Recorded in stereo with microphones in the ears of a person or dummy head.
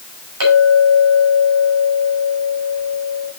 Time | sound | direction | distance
0.4 | a clink | 85° right | 5 m